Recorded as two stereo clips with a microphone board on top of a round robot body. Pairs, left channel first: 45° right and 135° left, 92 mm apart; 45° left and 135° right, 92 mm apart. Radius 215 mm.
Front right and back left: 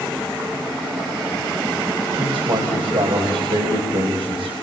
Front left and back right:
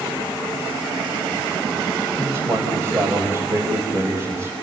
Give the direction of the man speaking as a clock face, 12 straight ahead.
7 o'clock.